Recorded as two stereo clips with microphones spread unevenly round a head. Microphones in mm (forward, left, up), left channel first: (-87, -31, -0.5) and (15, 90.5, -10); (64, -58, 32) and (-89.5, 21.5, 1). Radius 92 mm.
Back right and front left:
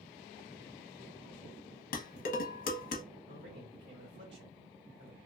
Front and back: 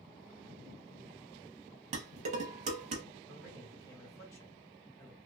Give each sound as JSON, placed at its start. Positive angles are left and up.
{"t": 1.9, "sound": "dishes clattering", "azimuth_deg": -160, "distance_m": 0.8}
{"t": 3.3, "sound": "a man speaking", "azimuth_deg": 50, "distance_m": 1.7}